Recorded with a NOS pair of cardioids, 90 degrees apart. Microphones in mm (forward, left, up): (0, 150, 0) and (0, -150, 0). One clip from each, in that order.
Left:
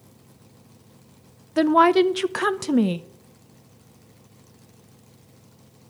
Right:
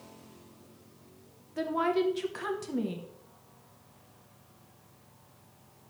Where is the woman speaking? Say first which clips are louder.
Left 12 dB; 60° left, 0.5 m.